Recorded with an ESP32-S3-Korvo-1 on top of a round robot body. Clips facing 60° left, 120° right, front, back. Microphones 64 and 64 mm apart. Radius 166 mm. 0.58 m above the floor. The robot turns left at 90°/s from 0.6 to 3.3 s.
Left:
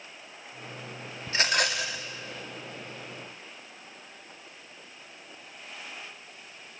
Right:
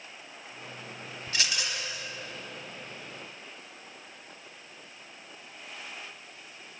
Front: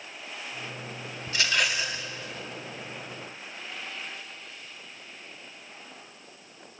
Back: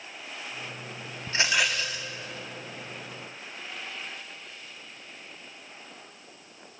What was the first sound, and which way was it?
A rattle, 125° left.